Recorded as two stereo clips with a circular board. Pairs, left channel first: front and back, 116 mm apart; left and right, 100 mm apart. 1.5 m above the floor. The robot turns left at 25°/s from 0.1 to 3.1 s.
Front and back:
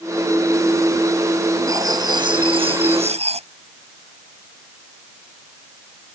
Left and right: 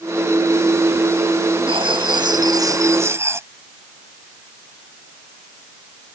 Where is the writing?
120° right; by 3.5 s 155° right.